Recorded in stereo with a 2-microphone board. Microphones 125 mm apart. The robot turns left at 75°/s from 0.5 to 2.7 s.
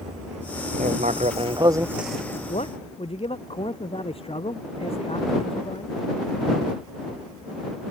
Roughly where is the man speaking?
Left.